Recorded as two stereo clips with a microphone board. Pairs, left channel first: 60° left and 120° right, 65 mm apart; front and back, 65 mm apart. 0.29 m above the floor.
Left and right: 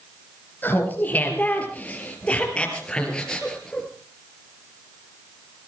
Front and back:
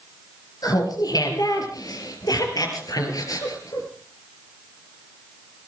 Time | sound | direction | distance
0.6 | laughter | straight ahead | 5 m